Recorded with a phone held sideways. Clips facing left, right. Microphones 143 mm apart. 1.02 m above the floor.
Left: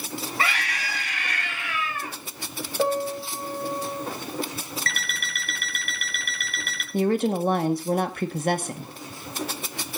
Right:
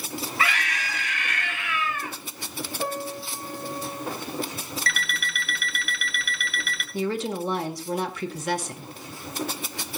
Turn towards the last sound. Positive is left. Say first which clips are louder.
# left 5 dB
turn(degrees=50)  # may be behind; listen again after turning